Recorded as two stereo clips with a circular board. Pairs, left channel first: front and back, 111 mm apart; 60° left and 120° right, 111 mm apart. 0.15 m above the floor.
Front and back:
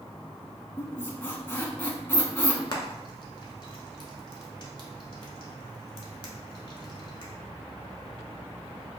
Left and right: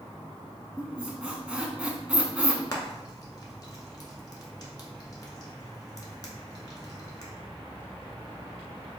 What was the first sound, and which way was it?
A squeak, 50° right.